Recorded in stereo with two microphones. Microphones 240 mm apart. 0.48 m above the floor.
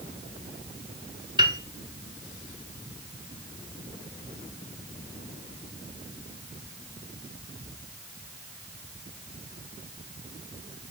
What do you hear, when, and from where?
1.4 s a piano: 20° right (ahead or behind), 1.1 m